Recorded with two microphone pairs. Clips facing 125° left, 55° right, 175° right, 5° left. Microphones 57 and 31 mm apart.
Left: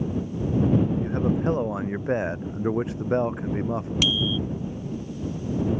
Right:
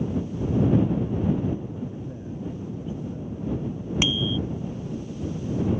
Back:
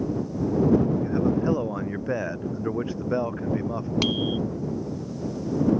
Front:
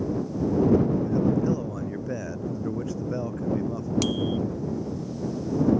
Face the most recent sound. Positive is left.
turn(degrees=-120)